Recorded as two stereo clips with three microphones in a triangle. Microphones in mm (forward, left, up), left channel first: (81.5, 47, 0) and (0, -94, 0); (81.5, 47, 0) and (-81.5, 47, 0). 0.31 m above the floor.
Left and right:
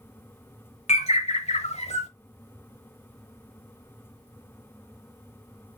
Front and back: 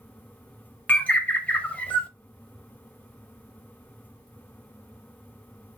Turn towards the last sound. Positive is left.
turn(degrees=80)